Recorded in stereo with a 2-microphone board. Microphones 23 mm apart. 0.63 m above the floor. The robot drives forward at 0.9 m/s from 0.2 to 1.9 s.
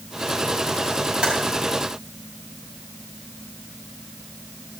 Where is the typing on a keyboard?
50° right (ahead or behind), 5.5 m.